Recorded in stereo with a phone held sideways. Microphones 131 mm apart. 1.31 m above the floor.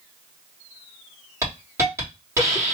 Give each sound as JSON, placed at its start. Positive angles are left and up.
{"t": 1.4, "sound": "a hiss", "side_deg": -20, "distance_m": 2.0}